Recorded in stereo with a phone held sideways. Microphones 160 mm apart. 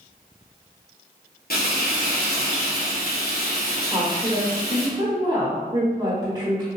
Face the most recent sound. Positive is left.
turn(degrees=-30)  # may be behind; listen again after turning